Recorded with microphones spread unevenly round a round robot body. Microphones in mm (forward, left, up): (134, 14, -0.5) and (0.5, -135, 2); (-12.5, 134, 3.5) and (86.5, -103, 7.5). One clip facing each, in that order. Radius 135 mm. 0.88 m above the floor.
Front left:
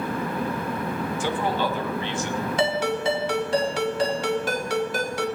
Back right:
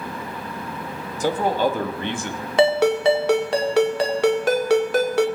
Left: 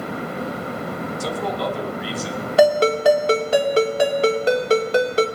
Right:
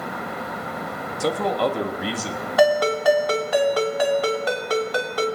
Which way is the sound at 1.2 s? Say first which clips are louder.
Back right 7 dB, right 5 dB; 90° right.